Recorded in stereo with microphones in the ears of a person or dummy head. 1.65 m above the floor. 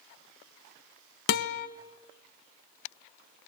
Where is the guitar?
55° left (ahead or behind), 1.3 m.